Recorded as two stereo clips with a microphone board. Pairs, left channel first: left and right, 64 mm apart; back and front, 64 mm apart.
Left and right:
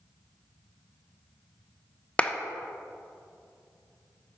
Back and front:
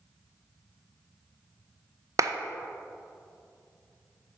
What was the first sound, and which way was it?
A clap, 20° left.